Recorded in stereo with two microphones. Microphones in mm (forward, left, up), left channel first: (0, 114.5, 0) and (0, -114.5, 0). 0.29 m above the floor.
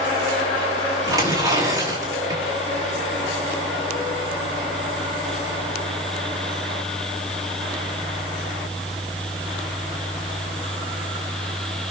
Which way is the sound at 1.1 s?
15° right (ahead or behind).